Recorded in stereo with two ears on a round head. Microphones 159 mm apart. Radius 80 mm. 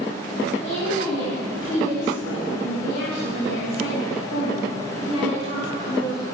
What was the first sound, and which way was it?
A woman speaking, 75° left (ahead or behind).